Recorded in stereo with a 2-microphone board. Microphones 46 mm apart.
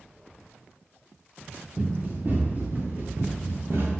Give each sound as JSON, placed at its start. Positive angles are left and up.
{"t": 1.8, "sound": "running footsteps", "side_deg": -35, "distance_m": 3.0}